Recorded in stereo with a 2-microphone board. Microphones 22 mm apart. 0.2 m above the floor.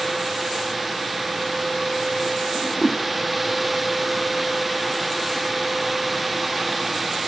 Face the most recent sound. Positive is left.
turn(degrees=10)  # may be behind; listen again after turning